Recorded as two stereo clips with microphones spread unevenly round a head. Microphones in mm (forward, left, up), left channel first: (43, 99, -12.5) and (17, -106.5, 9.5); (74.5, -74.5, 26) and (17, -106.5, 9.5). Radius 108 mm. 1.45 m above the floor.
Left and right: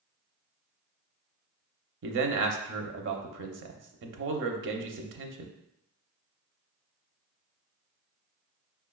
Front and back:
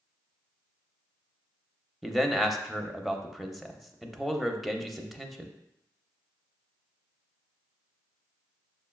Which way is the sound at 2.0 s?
65° right.